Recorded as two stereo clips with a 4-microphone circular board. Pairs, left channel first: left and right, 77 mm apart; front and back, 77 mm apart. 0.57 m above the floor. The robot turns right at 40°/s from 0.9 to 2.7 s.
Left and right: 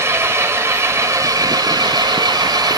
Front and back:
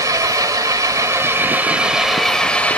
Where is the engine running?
140° right, 1.8 m; by 2.8 s 70° right, 1.8 m.